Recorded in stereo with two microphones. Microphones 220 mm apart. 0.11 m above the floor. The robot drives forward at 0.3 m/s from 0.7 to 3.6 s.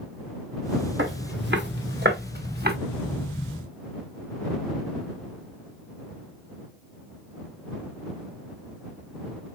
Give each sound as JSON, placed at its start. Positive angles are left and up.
{"t": 1.0, "sound": "footsteps", "side_deg": -60, "distance_m": 2.5}